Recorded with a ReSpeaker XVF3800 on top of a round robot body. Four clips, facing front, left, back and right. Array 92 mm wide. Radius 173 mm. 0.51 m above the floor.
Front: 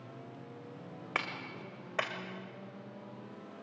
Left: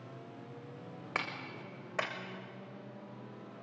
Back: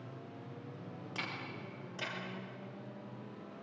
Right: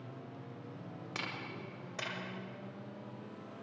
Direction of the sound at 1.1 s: 35° left.